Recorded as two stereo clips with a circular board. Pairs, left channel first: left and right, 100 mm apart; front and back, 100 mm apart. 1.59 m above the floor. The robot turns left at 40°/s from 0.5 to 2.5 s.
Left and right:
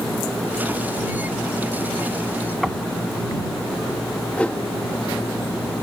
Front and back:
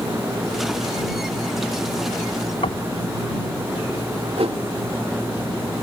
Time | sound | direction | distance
2.6 | knocking | 5° right | ?
4.4 | a whoosh | 170° left | ?